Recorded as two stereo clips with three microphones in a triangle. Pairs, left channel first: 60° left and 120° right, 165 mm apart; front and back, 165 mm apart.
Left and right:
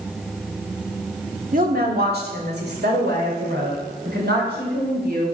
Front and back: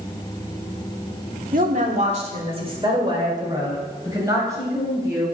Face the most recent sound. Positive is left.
turn(degrees=-105)